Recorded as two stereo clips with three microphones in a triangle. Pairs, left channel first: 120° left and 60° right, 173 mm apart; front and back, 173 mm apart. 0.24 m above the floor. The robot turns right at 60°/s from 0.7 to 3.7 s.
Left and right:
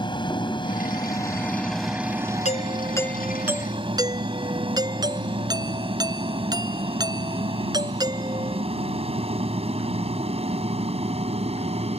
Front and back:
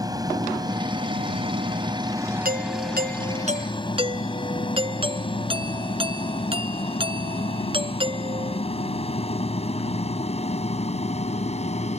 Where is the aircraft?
140° left; by 12.0 s 25° right.